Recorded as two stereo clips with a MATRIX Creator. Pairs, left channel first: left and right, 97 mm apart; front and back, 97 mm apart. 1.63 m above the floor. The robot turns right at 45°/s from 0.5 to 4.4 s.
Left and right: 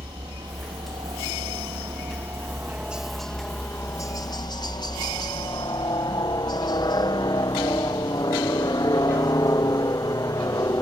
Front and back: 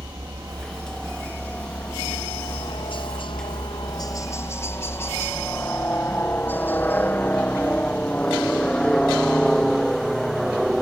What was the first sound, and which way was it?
A helicopter, 125° right.